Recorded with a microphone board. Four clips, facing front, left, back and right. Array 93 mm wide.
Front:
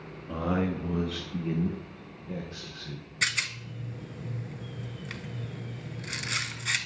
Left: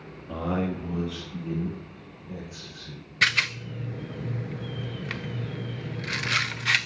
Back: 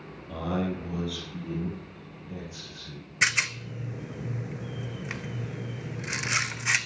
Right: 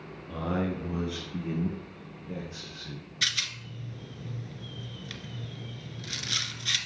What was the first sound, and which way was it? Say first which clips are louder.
A man speaking: left 2 dB, front 1 dB; 30° left.